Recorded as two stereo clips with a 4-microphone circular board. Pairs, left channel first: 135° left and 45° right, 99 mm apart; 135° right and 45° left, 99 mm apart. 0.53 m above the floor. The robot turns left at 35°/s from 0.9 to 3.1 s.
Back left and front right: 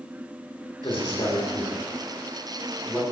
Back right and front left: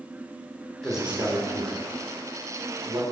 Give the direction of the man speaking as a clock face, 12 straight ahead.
8 o'clock.